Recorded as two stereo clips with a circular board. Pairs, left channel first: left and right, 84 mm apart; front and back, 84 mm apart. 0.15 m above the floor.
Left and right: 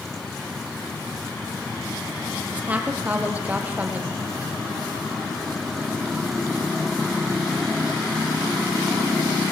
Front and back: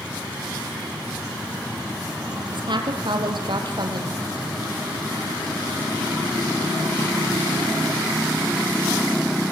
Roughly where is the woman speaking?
Behind.